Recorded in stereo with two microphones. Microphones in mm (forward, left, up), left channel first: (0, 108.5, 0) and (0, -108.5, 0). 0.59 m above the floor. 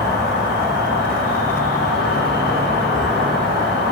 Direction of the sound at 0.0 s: 45° right (ahead or behind).